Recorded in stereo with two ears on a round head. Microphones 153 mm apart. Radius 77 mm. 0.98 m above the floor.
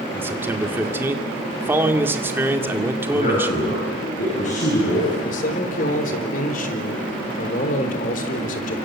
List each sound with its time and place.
0.1 s a man speaking: 15° right (ahead or behind), 2.5 m
3.1 s a man speaking: 45° left (ahead or behind), 8.5 m
5.2 s a man speaking: 50° left (ahead or behind), 3.5 m